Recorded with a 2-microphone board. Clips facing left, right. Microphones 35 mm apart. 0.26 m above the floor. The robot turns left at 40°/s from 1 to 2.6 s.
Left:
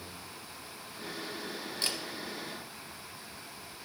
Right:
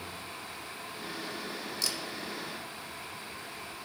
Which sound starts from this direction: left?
A camera shutter, at 1.8 s.